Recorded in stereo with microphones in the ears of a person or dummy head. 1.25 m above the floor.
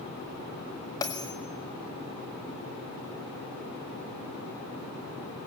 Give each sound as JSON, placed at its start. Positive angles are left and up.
{"t": 1.0, "sound": "a bell", "side_deg": 20, "distance_m": 1.6}